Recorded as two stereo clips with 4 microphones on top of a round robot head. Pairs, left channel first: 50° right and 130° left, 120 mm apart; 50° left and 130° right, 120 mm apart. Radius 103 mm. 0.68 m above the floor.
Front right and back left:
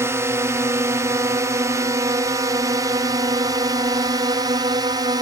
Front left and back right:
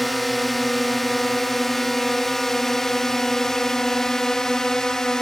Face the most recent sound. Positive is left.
turn(degrees=130)